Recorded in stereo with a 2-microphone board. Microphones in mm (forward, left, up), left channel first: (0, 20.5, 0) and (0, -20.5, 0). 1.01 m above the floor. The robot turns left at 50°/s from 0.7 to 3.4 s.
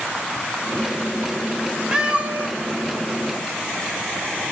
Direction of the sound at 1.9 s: 20° right (ahead or behind).